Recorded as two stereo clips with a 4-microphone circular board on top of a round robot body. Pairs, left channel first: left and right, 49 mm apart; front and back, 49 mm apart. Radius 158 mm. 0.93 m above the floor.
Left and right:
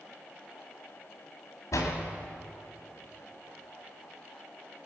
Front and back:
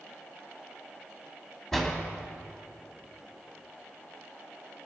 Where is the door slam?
80° left, 1.9 m.